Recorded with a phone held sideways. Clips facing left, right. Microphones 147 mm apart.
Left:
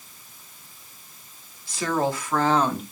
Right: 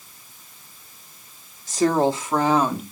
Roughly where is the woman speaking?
Right.